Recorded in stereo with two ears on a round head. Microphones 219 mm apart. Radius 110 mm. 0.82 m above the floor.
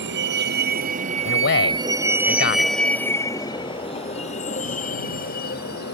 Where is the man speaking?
50° left (ahead or behind).